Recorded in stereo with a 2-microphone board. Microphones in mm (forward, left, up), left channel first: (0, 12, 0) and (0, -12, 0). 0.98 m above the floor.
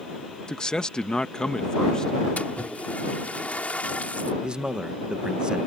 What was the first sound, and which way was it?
A man speaking, 35° left (ahead or behind).